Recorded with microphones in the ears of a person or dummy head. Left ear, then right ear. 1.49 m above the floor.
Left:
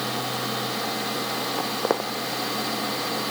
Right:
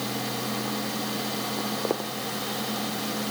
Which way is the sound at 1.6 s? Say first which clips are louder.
Left 5 dB; 55° left (ahead or behind).